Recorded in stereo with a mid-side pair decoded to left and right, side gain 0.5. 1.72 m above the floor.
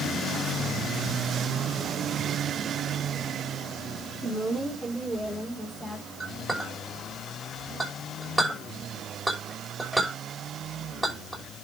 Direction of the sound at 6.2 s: 15° right.